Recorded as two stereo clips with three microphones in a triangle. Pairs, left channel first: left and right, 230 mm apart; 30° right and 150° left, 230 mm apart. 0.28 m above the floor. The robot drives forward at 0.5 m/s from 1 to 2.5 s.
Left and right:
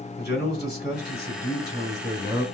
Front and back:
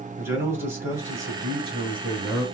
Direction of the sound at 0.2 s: 75° left.